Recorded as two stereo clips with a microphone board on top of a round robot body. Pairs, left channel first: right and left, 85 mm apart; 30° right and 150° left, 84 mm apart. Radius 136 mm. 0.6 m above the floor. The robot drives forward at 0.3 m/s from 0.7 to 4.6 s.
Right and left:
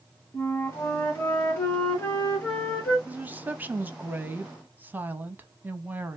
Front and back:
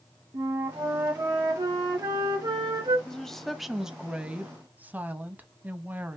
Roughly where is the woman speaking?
Ahead left.